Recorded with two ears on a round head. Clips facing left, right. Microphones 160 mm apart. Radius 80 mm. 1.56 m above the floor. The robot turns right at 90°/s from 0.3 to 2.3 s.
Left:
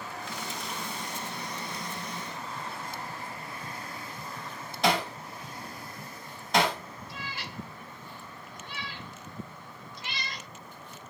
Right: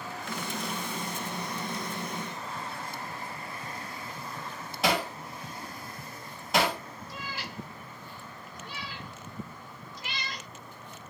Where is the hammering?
5° right (ahead or behind), 1.3 m.